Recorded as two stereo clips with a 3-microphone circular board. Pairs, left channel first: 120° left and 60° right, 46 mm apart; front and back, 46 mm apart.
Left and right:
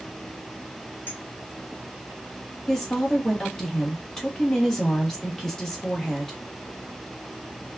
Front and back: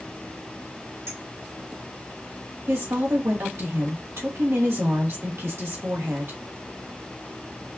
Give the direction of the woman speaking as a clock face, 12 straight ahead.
5 o'clock.